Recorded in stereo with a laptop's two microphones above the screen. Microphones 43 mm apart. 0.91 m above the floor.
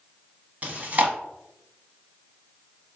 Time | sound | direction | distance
0.6 | chewing | 40° right (ahead or behind) | 0.8 m